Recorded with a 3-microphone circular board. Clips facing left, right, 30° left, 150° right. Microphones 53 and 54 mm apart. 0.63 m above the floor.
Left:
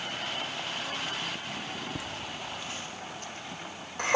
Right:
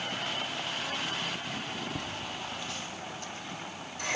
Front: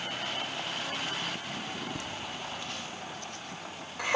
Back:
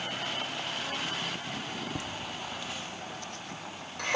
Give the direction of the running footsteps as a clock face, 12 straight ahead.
No running footsteps in this recording.